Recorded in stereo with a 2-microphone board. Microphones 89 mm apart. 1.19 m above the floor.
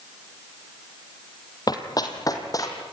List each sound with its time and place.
1.7 s running footsteps: 45° left (ahead or behind), 2.5 m; by 2.8 s 40° left (ahead or behind), 4 m